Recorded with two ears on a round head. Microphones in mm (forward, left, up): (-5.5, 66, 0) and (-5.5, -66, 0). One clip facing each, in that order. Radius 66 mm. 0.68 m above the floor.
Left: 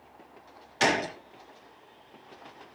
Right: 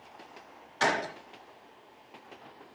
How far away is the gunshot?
About 1.1 m.